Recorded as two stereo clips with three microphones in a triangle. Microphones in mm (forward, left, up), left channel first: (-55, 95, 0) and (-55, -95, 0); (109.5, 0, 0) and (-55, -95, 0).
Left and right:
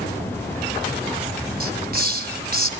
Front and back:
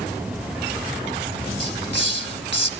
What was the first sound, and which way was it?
A hiss, 125° right.